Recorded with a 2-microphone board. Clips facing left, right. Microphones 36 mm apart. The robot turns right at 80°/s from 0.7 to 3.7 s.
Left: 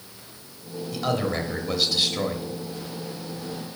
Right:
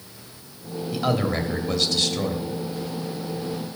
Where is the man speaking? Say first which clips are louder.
Right 2 dB; 15° right (ahead or behind), 0.9 m; by 2.5 s 20° left (ahead or behind), 0.9 m.